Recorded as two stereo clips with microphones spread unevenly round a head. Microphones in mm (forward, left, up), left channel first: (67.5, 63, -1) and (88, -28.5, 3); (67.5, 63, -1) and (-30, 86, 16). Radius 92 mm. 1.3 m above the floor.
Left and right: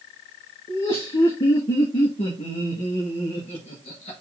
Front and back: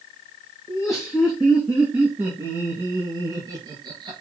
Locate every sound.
0.7 s laughter: 70° left, 2.5 m; by 4.2 s 125° left, 2 m